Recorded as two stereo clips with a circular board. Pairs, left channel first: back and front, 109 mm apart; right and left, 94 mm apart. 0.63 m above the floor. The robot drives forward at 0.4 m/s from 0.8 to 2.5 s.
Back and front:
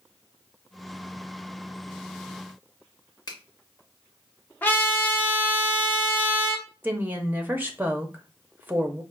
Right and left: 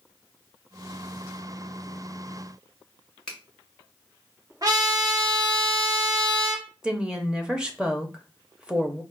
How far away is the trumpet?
About 0.8 m.